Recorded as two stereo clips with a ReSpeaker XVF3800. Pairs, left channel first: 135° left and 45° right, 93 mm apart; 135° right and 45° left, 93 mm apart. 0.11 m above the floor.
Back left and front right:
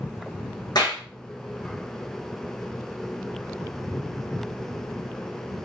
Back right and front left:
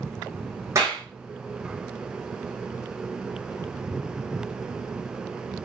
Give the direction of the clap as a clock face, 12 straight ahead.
9 o'clock.